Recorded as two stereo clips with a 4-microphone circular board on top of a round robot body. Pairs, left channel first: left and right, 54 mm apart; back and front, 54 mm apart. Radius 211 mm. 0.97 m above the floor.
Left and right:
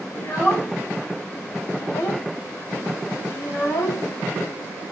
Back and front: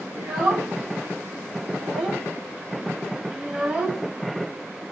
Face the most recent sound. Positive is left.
turn(degrees=80)